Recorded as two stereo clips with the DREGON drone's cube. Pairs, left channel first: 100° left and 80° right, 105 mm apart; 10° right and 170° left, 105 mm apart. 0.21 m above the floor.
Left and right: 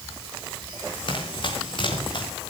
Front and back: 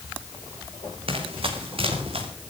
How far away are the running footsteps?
About 5.5 m.